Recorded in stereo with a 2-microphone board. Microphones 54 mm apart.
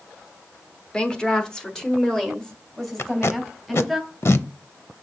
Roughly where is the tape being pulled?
Left.